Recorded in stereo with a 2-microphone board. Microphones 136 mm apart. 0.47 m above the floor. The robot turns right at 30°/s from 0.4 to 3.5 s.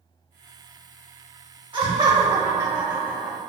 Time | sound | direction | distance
1.7 | laughter | 55° right | 1.0 m